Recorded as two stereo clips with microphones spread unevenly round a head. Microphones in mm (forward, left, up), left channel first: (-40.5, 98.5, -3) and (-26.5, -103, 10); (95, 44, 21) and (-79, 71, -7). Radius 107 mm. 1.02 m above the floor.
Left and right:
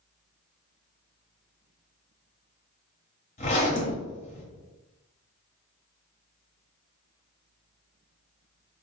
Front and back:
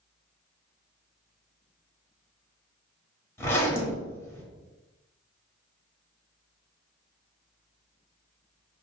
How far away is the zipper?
About 0.9 m.